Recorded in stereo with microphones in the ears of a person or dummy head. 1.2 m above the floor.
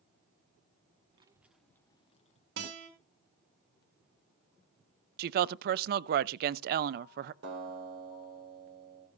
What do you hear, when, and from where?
1.1 s a child speaking: 35° right (ahead or behind), 0.8 m; by 2.5 s 35° left (ahead or behind), 1.4 m
2.6 s a guitar: 60° right (ahead or behind), 4.5 m
5.2 s a woman speaking: 50° right (ahead or behind), 0.5 m
7.4 s a guitar: 70° right (ahead or behind), 3.5 m